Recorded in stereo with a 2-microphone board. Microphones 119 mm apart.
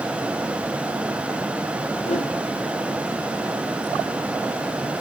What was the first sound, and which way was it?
A whoosh, 60° left (ahead or behind).